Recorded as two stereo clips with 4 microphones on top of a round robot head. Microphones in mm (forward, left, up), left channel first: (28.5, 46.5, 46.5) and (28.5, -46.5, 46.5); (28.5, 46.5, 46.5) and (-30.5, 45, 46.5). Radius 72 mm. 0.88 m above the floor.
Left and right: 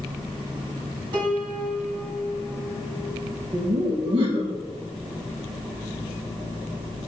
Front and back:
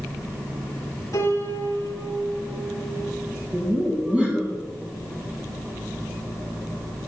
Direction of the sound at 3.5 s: 110° right.